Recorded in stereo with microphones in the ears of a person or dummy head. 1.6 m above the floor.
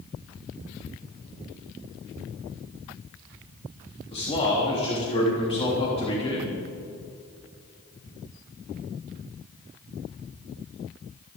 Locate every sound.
4.1 s a man speaking: 30° left (ahead or behind), 3 m